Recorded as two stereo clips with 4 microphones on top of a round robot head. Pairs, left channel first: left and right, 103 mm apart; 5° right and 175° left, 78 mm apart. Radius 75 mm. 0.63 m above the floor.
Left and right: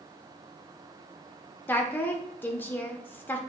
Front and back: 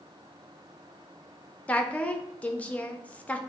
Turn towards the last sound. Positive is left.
turn(degrees=45)